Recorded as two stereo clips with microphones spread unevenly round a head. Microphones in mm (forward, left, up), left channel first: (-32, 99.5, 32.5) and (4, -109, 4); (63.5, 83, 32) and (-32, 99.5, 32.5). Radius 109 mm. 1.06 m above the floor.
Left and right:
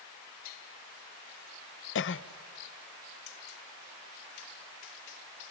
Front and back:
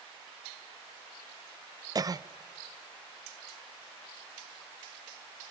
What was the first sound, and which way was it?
A cough, 125° left.